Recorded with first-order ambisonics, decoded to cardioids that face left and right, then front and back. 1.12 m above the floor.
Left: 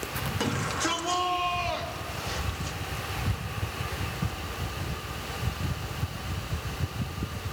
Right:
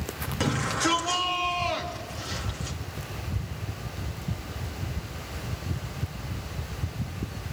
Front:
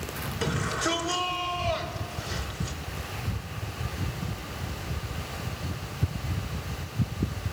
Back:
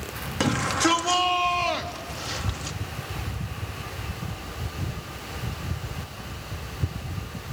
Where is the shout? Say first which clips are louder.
Right 4 dB, back 6 dB; 175° right, 2.5 m.